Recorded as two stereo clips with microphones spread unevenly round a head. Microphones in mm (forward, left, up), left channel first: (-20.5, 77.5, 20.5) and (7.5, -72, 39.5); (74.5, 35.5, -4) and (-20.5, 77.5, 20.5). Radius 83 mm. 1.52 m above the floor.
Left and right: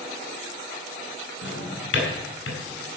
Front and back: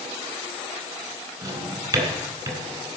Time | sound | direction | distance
1.4 | a drawer | 115° left | 4 m